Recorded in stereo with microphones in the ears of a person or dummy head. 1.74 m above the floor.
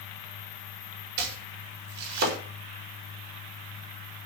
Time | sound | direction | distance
1.2 | chopping | 55° right (ahead or behind) | 5 m